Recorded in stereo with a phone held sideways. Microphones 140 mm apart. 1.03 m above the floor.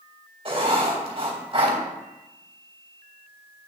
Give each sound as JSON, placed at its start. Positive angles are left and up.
{"t": 0.5, "sound": "writing", "side_deg": -40, "distance_m": 3.0}